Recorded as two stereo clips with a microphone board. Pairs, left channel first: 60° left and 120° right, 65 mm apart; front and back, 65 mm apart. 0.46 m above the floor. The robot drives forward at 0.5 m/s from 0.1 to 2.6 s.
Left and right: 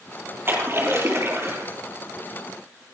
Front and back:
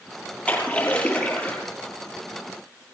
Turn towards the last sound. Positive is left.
turn(degrees=-75)